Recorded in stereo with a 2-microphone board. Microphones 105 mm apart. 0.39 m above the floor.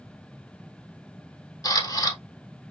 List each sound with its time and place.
1.6 s a camera shutter: 35° left (ahead or behind), 1.5 m